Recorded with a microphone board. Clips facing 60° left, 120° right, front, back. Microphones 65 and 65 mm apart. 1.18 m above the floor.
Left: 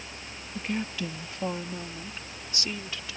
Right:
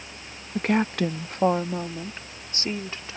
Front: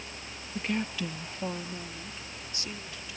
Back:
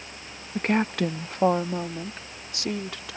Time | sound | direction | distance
0.6 | a woman speaking | 140° right | ?